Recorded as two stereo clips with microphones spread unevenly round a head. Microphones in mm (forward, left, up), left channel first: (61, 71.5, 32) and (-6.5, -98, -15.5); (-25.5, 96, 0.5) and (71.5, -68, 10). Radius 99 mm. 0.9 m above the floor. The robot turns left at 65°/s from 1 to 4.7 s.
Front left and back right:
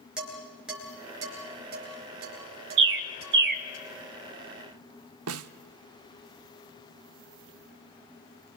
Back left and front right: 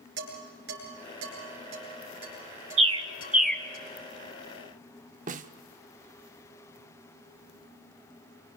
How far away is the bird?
About 0.9 m.